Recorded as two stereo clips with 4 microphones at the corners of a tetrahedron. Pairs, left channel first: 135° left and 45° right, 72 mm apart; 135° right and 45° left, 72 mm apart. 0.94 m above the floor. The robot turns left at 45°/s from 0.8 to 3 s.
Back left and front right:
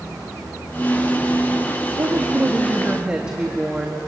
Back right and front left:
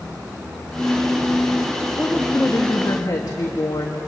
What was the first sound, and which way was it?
A woman speaking, 75° right.